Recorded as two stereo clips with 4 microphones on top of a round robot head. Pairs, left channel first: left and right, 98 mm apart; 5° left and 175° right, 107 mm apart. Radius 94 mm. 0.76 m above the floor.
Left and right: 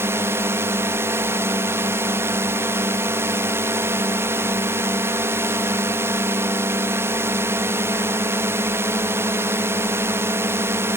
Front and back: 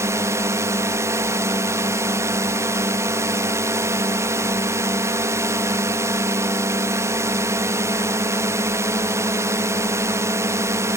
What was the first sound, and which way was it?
A drone, 135° right.